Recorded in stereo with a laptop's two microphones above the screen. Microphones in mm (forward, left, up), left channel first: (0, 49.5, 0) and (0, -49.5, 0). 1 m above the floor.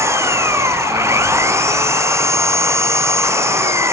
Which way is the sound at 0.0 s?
25° right (ahead or behind).